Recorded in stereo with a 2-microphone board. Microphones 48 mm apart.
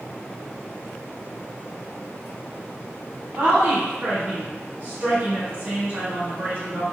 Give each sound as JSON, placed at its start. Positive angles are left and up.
{"t": 3.4, "sound": "a woman speaking", "side_deg": -45, "distance_m": 1.2}